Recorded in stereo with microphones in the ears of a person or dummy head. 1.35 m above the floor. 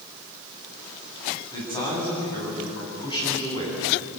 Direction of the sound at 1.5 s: 20° left (ahead or behind).